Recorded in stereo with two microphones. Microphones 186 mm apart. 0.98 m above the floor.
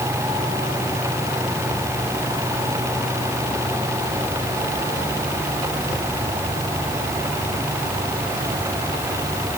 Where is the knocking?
No knocking in this recording.